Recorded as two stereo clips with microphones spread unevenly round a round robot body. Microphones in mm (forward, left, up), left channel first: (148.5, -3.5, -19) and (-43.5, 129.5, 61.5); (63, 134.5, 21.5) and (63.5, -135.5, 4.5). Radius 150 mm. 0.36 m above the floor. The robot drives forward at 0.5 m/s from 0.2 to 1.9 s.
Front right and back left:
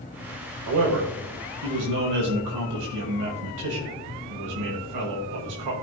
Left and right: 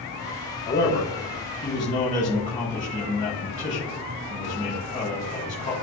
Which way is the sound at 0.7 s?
145° left.